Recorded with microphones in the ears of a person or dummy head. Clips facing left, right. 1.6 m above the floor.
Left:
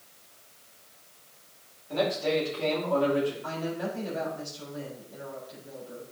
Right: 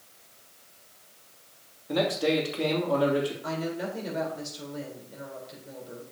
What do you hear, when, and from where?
1.9 s a man speaking: 75° right (ahead or behind), 3 m
3.4 s a woman speaking: 30° right (ahead or behind), 4 m